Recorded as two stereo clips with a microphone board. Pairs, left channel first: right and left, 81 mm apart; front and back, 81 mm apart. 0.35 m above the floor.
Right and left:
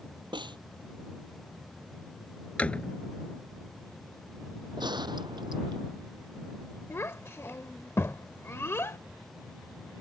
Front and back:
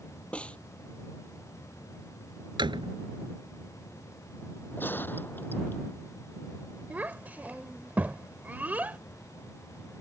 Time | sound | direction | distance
0.3 | a snare drum | 75° left | ?
2.6 | a door slam | 165° right | ?
4.8 | a gunshot | 65° left | ?
6.9 | a child speaking | 125° right | ?